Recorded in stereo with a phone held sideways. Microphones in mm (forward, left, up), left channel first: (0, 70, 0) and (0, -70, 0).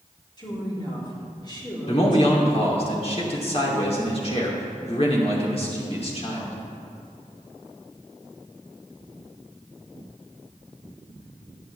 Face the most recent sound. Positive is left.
turn(degrees=45)  # may be behind; listen again after turning